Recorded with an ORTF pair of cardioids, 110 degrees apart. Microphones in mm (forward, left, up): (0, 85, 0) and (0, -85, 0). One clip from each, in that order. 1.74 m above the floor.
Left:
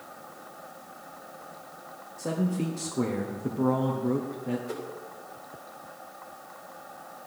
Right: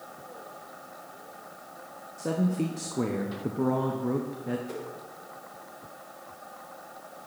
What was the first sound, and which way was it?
A man speaking, 5° right.